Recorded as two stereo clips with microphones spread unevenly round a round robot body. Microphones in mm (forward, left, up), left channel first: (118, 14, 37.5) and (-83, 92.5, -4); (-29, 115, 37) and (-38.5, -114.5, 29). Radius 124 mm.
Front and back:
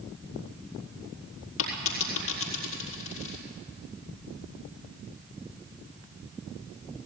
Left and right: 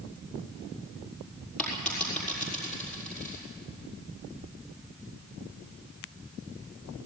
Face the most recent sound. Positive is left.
turn(degrees=0)